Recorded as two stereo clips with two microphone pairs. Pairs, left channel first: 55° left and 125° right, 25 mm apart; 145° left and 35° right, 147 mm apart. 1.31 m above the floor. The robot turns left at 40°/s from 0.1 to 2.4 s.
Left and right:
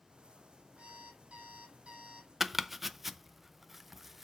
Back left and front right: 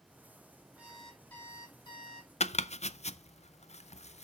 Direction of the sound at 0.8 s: 115° right.